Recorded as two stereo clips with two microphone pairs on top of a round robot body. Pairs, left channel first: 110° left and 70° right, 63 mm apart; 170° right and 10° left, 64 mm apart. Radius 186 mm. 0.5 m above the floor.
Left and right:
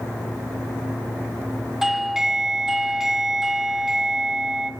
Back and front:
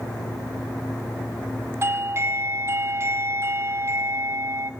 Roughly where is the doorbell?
Ahead.